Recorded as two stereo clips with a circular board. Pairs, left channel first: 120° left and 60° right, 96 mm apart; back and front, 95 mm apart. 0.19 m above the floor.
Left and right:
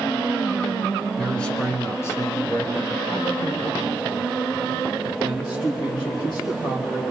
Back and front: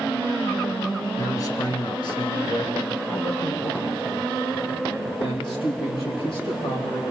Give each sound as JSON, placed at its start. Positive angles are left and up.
{"t": 1.2, "sound": "a man speaking", "azimuth_deg": -155, "distance_m": 1.1}